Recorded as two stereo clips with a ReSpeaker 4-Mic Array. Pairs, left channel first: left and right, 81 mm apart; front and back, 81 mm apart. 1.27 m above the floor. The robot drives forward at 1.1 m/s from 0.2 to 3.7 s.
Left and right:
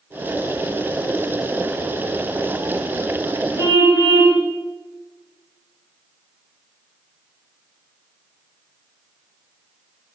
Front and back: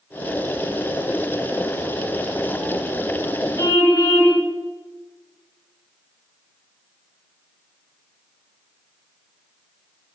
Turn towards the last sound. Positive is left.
turn(degrees=50)